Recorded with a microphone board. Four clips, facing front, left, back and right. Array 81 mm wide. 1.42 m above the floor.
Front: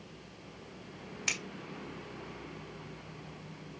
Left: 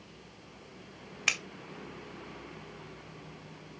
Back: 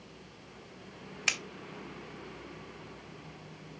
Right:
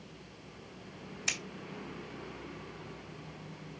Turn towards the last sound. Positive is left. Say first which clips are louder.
# left 6 dB, back 4 dB
turn(degrees=105)